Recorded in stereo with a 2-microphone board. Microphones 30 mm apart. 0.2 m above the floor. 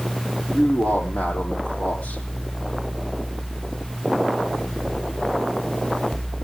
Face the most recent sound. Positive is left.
turn(degrees=60)  # may be behind; listen again after turning